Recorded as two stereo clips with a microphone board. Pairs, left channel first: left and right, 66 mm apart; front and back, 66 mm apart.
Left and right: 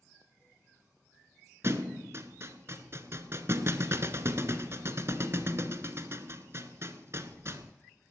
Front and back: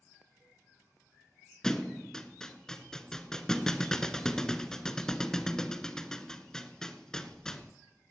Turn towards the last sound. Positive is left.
turn(degrees=-75)